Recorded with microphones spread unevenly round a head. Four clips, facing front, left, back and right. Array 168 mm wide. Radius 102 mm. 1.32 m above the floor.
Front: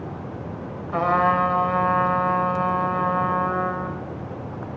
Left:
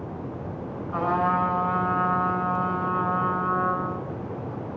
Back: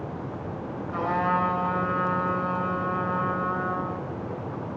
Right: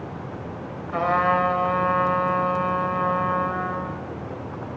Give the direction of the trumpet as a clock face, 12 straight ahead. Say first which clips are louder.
Right 3 dB, front 6 dB; 1 o'clock.